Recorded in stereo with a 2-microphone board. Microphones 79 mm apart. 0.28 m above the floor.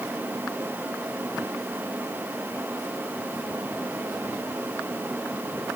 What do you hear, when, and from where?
Only background noise.